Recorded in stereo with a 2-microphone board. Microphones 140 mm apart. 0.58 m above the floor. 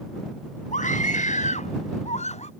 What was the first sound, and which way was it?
A scream, 65° left (ahead or behind).